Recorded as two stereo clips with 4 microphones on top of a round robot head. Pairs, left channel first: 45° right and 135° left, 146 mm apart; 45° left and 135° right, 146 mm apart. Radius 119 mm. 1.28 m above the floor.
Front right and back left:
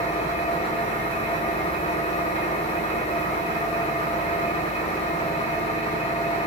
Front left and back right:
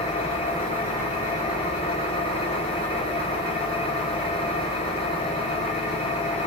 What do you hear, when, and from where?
0.0 s an engine running: 5° right, 2 m